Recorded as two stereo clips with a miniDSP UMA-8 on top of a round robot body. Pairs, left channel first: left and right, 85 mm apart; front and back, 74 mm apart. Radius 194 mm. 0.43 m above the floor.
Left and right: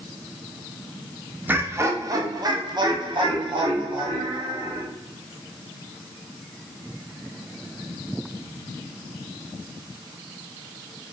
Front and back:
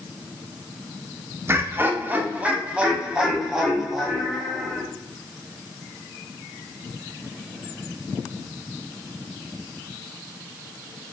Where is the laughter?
145° right, 1.1 m; by 4.8 s 90° right, 2.5 m.